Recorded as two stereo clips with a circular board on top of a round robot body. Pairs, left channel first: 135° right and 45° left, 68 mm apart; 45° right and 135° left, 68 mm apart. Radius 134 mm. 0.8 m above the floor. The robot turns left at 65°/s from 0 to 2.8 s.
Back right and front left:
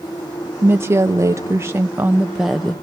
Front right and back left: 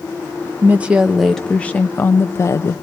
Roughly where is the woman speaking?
Left.